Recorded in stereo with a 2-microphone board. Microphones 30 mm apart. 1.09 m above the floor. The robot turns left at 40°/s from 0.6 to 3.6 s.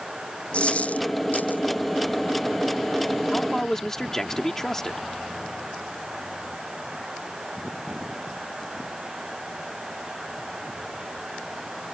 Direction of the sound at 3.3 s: 25° left (ahead or behind).